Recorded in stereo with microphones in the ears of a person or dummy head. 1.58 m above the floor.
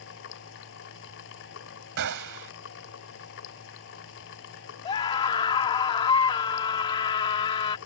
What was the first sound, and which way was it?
A machine running, 65° left (ahead or behind).